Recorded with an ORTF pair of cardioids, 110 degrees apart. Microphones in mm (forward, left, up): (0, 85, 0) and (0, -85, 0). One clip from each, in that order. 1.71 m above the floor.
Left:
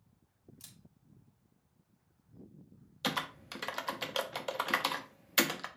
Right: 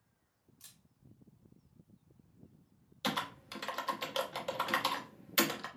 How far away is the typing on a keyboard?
About 0.7 m.